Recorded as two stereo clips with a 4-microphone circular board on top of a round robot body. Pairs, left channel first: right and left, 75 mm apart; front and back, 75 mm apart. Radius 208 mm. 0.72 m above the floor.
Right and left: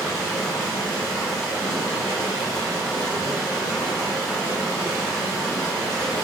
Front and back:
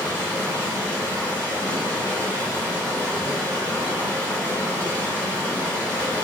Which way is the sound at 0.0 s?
Straight behind.